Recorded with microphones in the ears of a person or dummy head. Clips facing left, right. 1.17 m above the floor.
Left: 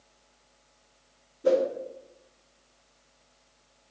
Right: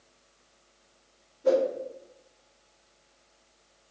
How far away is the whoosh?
About 2 m.